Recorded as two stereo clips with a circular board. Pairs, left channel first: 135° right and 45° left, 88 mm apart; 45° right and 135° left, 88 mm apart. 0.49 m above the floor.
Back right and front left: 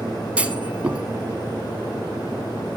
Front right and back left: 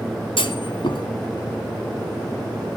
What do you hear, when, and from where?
0.4 s a clunk: 30° right, 1.1 m